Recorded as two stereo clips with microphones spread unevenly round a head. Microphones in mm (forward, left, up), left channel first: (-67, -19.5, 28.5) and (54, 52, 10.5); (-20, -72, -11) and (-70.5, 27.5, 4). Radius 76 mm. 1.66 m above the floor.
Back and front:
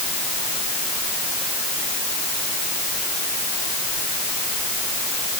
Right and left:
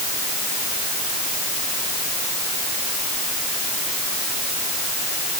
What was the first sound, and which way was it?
Only background noise.